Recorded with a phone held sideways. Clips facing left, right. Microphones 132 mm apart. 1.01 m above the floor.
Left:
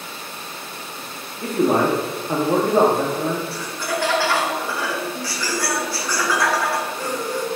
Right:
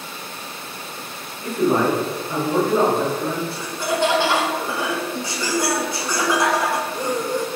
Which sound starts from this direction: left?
A man speaking, at 1.4 s.